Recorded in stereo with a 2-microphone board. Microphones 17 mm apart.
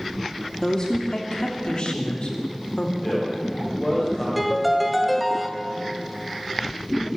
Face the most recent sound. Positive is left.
turn(degrees=0)  # may be behind; listen again after turning